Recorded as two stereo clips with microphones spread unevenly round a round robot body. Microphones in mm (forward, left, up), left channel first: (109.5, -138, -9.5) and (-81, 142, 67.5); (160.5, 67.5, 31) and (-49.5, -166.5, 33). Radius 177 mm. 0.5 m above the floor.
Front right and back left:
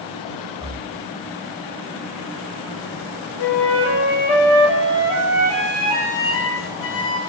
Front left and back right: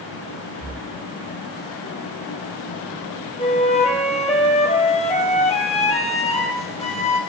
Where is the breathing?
135° right, 10 m.